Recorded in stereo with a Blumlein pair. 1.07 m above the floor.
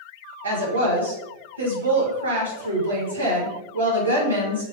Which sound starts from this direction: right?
A woman speaking, at 0.4 s.